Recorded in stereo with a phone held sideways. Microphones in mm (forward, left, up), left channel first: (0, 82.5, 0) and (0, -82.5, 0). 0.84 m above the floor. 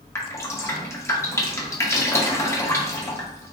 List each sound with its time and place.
0.1 s dripping: 15° left (ahead or behind), 0.6 m